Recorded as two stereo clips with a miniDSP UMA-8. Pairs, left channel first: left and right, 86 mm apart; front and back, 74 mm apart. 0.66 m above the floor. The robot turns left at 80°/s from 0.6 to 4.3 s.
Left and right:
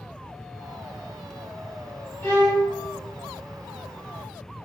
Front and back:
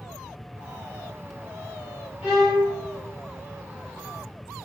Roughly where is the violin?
Behind left.